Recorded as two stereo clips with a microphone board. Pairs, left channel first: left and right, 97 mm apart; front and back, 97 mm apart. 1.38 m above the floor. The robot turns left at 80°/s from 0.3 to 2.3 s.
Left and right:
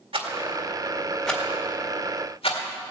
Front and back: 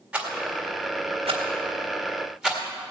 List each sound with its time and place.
0.1 s a rattle: 105° right, 1.9 m; by 2.6 s 95° left, 1.9 m